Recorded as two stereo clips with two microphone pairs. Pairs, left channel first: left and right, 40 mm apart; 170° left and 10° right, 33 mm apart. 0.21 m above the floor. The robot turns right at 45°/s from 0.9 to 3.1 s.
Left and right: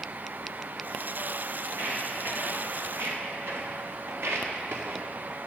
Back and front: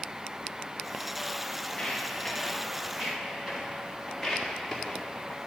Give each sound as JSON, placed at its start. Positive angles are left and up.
{"t": 1.7, "sound": "footsteps", "azimuth_deg": -130, "distance_m": 4.0}